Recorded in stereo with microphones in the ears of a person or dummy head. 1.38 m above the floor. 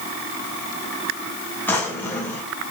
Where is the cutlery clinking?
No cutlery clinking in this recording.